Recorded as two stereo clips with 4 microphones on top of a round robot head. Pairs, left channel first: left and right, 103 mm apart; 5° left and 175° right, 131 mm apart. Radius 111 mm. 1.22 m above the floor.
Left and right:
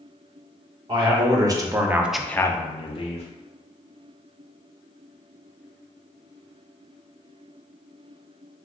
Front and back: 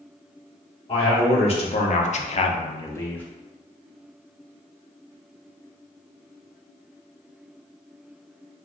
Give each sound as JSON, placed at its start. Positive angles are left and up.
{"t": 0.9, "sound": "a man speaking", "azimuth_deg": -50, "distance_m": 1.3}